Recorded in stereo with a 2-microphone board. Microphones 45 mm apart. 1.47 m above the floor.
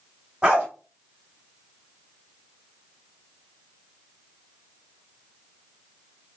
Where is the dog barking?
20° right (ahead or behind), 1.2 m.